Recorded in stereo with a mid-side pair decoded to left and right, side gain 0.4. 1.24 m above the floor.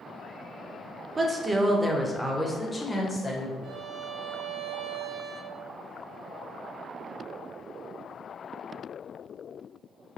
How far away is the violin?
About 0.6 m.